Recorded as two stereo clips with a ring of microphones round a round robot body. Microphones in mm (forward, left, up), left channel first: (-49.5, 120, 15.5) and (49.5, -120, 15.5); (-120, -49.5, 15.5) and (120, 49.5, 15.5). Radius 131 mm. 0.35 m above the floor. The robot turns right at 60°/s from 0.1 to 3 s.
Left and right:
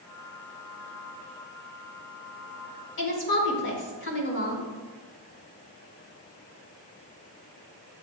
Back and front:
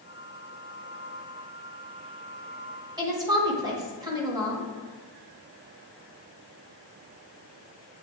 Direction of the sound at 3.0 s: 90° left.